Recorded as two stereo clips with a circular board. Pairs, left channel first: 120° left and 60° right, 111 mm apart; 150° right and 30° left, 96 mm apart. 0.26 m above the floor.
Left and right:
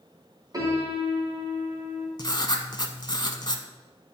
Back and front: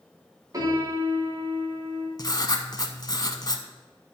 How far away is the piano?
About 2.5 m.